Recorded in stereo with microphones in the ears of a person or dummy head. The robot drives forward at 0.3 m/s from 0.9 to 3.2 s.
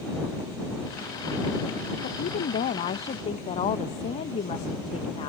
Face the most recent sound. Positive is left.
turn(degrees=35)  # may be behind; listen again after turning